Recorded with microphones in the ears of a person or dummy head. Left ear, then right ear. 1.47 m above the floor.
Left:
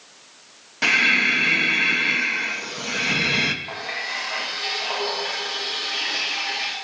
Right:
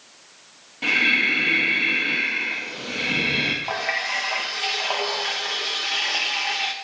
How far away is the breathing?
About 0.9 m.